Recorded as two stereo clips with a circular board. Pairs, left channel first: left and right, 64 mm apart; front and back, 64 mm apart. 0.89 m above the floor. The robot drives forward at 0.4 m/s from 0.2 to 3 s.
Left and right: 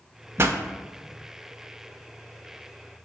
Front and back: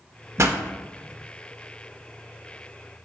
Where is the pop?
135° right, 0.6 m; by 0.6 s 140° right, 0.6 m.